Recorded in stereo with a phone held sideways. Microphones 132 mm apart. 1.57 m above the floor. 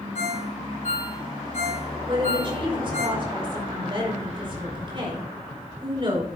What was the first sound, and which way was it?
A ringtone, 75° left (ahead or behind).